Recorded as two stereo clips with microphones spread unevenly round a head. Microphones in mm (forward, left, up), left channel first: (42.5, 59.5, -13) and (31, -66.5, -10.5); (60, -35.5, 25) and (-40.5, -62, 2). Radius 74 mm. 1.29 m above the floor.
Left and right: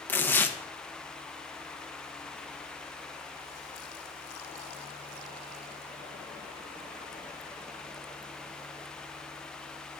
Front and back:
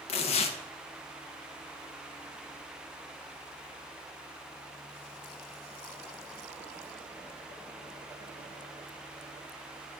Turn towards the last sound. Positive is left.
turn(degrees=10)